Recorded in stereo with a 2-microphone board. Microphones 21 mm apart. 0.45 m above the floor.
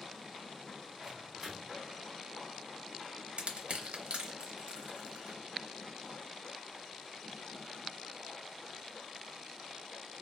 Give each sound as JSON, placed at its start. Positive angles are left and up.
{"t": 1.0, "sound": "a microwave", "side_deg": -30, "distance_m": 1.0}
{"t": 3.4, "sound": "crushing", "side_deg": -65, "distance_m": 0.7}